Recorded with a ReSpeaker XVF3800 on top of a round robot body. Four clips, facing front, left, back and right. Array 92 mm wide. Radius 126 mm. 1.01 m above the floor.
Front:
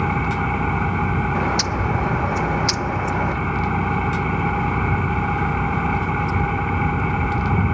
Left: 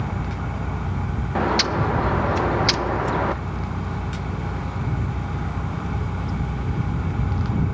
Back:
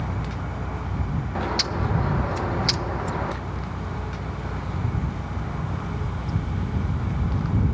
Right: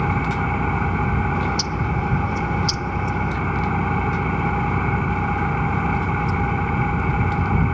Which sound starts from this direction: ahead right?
An engine running, at 0.0 s.